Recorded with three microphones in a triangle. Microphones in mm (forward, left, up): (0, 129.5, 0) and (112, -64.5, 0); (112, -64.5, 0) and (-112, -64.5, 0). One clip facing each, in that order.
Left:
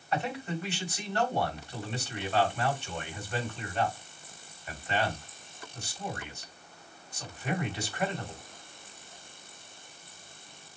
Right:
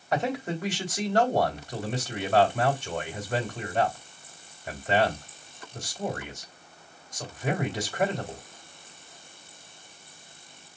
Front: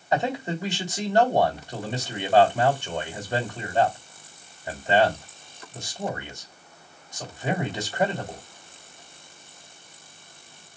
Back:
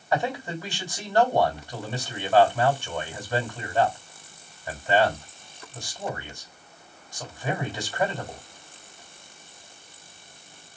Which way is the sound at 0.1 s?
70° right.